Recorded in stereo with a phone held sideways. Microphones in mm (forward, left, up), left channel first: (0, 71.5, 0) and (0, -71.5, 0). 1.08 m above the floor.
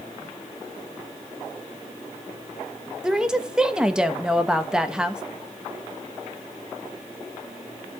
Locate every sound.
3.0 s a woman speaking: 5° right (ahead or behind), 1.1 m